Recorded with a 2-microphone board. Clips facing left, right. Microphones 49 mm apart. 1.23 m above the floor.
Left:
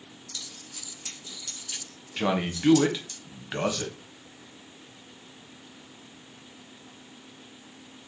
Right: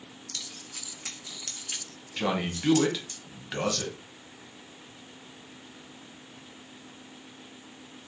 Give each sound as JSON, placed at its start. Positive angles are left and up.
{"t": 0.3, "sound": "keys jangling", "side_deg": -60, "distance_m": 0.6}
{"t": 2.2, "sound": "a man speaking", "side_deg": 15, "distance_m": 0.7}